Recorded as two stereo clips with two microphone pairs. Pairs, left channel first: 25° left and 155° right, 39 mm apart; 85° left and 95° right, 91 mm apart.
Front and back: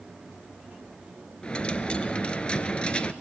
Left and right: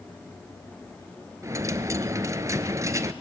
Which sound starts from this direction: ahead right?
A dropped coin, at 1.4 s.